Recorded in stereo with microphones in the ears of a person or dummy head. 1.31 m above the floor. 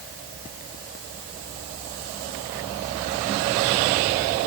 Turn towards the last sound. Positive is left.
No sound to turn to.